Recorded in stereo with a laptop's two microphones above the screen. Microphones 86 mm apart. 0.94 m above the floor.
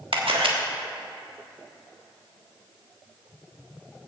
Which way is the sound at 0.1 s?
85° right.